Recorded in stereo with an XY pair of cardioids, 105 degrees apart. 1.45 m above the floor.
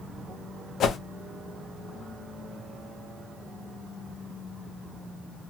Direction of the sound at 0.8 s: 60° left.